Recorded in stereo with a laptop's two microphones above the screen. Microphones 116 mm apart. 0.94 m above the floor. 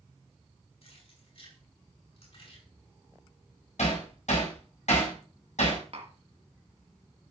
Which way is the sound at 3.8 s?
80° left.